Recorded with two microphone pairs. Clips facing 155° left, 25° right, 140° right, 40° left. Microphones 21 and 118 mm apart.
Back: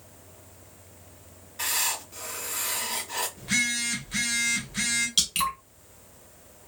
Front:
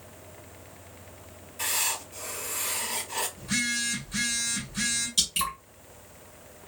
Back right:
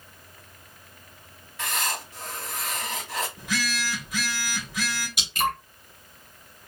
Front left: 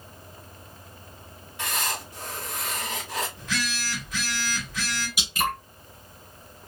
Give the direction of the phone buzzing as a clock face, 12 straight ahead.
7 o'clock.